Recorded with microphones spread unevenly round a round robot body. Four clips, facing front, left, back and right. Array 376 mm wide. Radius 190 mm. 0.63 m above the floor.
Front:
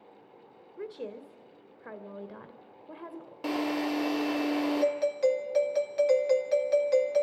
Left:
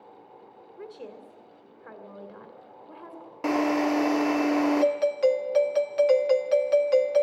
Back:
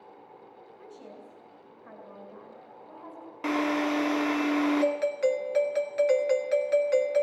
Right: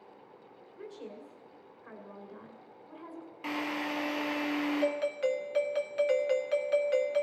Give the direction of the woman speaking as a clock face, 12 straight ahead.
12 o'clock.